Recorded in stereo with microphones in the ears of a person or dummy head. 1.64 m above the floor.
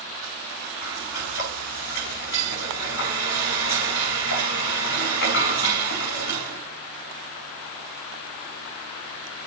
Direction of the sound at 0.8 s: 65° left (ahead or behind).